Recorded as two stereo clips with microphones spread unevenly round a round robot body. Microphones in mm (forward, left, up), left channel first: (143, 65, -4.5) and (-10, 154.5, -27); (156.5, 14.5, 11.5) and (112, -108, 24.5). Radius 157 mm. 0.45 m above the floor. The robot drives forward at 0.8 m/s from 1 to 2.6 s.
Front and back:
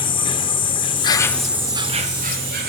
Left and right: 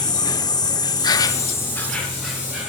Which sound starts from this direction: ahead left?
An insect, at 0.0 s.